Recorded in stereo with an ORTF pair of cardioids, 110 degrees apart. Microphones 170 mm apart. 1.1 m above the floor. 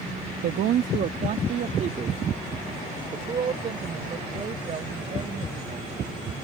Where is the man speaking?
70° right; by 5.9 s 35° right.